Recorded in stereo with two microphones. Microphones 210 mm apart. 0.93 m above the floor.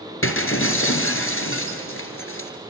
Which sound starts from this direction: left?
Breaking glass, at 0.2 s.